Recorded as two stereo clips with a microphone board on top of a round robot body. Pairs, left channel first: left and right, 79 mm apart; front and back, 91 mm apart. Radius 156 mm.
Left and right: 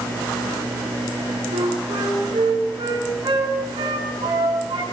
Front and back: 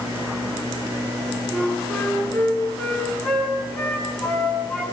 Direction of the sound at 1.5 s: 75° right.